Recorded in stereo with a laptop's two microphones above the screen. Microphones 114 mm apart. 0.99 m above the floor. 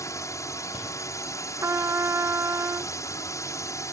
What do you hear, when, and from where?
0.0 s a drone: 25° left (ahead or behind)
1.6 s a trumpet: 25° right (ahead or behind)